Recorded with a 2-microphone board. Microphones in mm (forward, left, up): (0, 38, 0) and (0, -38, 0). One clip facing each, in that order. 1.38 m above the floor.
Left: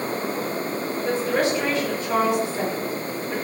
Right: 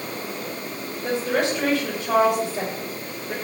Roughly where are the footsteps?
No footsteps in this recording.